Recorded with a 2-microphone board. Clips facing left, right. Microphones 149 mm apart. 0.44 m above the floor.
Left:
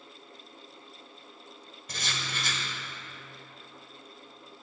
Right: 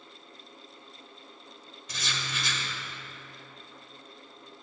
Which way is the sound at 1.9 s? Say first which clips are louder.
Even; 50° left (ahead or behind).